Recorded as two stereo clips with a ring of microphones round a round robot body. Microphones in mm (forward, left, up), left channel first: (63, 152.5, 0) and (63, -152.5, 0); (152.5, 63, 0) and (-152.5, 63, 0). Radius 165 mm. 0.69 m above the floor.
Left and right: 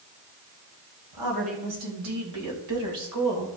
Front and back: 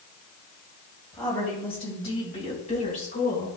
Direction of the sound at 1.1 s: 75° right.